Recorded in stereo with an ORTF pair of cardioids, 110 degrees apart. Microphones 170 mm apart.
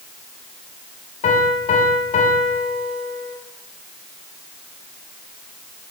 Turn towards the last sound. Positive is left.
turn(degrees=50)